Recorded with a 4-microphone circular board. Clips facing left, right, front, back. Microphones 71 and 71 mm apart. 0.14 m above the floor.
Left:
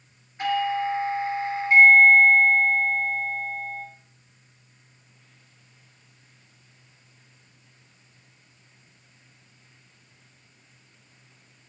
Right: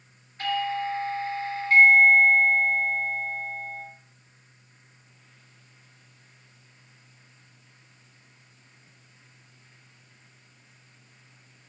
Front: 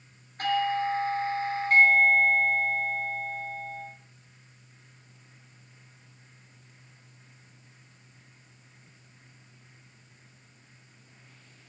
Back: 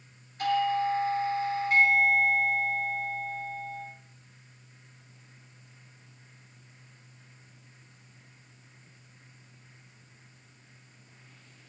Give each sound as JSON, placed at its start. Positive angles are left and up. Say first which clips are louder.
{"t": 0.4, "sound": "a doorbell", "louder": "left 3 dB, even", "azimuth_deg": 25, "distance_m": 3.0}